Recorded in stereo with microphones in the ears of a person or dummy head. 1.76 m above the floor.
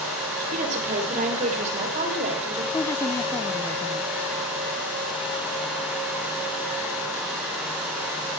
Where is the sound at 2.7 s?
15° left (ahead or behind), 1.1 m.